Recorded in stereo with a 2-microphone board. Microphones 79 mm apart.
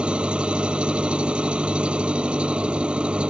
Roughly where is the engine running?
Centre.